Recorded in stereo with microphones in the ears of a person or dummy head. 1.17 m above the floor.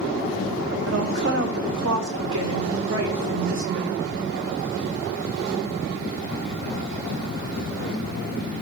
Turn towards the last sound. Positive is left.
turn(degrees=-65)  # may be behind; listen again after turning